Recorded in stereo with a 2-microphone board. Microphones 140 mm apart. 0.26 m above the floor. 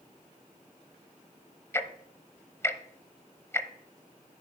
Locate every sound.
1.7 s ticking: 20° left (ahead or behind), 0.7 m